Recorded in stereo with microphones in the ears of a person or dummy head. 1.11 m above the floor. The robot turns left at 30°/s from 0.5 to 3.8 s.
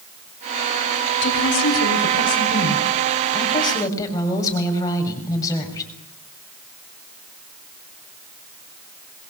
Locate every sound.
1.2 s a woman speaking: 95° left, 7 m; by 5.9 s 20° left, 7 m